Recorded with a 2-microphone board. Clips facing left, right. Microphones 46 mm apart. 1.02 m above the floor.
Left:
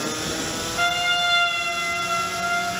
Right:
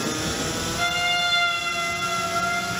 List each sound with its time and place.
0.8 s a trumpet: 30° left (ahead or behind), 1.3 m